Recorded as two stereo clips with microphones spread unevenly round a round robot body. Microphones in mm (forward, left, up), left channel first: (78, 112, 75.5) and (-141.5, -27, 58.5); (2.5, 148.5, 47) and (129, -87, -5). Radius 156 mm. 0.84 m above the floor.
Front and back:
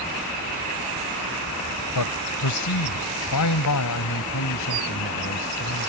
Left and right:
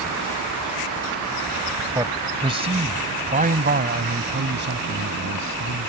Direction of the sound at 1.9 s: 15° left.